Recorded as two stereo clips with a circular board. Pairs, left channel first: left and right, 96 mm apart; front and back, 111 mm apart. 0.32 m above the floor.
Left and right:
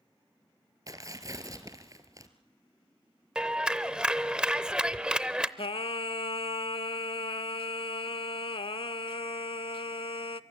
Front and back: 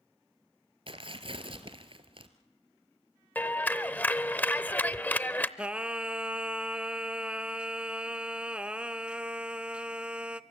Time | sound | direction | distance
0.9 | tearing paper | 145° right | 1.3 m
3.4 | a clap | 30° right | 0.6 m
5.6 | singing | 100° left | 0.6 m